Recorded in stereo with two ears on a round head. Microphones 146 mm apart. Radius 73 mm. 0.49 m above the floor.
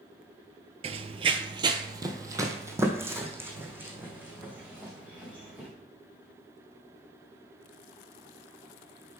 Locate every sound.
0.8 s running footsteps: 45° right (ahead or behind), 0.6 m; by 5.7 s 10° right (ahead or behind), 2.5 m